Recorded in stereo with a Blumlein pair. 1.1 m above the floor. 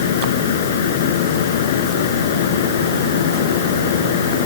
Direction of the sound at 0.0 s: 60° left.